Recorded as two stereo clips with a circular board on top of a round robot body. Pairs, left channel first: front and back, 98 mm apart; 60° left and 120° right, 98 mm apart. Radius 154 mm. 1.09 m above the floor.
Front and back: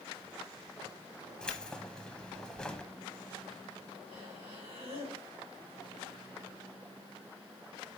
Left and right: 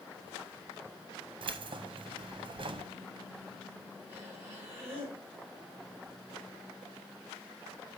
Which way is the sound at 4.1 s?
175° left.